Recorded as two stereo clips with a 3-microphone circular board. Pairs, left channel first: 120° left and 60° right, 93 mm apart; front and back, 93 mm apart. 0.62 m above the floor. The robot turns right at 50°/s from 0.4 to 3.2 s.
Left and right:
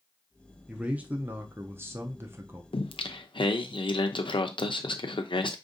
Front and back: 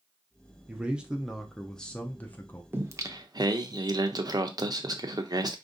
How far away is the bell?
No bell in this recording.